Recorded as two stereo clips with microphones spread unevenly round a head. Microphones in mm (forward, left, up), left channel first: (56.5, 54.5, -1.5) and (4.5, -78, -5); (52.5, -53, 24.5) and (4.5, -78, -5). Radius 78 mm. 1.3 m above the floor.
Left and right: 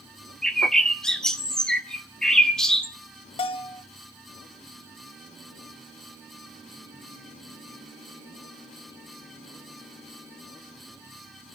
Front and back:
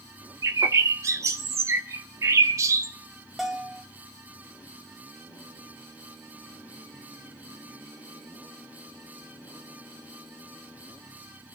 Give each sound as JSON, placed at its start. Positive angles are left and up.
{"t": 0.4, "sound": "a bird", "azimuth_deg": 145, "distance_m": 0.7}
{"t": 3.4, "sound": "a bell", "azimuth_deg": 65, "distance_m": 0.7}